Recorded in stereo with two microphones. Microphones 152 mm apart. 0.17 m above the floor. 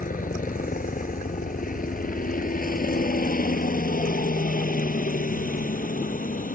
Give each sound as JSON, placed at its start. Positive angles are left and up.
{"t": 0.0, "sound": "a helicopter", "side_deg": 60}